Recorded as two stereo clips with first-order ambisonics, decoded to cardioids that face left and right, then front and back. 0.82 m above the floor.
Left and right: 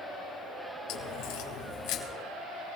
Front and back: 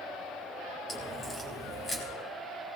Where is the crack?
75° left, 2.5 m.